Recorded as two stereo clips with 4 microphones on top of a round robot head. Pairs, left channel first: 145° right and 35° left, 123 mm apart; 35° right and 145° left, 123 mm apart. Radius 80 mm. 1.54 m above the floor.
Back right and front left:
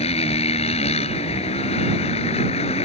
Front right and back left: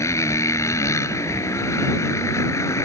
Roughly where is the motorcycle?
Right.